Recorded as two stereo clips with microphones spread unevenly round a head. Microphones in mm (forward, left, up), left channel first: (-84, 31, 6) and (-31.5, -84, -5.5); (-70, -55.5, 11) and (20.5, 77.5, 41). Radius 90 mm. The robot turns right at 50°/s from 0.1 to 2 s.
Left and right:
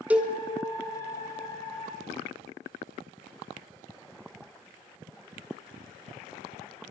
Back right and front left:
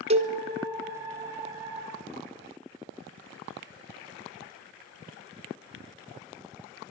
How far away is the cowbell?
About 0.9 m.